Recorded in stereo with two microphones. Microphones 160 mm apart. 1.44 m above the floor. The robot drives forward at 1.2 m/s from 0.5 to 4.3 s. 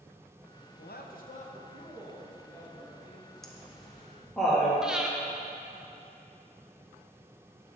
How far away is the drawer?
I don't hear a drawer.